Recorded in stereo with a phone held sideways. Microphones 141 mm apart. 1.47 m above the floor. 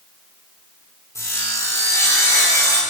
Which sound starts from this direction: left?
Sawing, at 1.1 s.